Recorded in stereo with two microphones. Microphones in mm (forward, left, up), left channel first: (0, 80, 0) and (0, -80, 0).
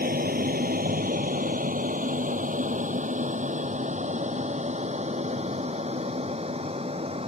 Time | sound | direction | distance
0.0 | an aircraft | 65° right (ahead or behind) | ?